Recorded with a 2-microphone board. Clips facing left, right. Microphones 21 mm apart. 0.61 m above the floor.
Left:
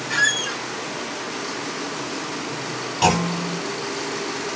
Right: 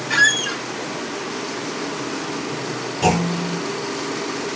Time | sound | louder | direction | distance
0.1 | a squeak | right 4 dB | 15° right (ahead or behind) | 0.5 m
3.0 | a clunk | even | 80° left | 2.0 m